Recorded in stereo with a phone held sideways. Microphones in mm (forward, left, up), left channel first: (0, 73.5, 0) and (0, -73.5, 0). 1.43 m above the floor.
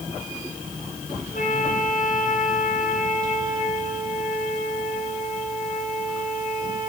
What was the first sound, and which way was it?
A flute, 65° left (ahead or behind).